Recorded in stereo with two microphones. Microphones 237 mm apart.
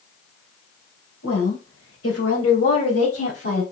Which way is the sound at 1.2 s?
70° left (ahead or behind).